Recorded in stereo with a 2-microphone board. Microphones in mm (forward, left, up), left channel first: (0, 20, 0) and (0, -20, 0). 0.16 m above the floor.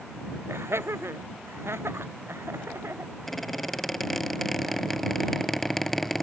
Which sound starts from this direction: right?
Laughter, at 0.5 s.